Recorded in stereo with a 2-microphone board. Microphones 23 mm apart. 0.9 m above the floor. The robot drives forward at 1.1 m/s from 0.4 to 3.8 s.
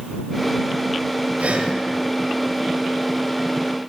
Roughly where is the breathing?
Right.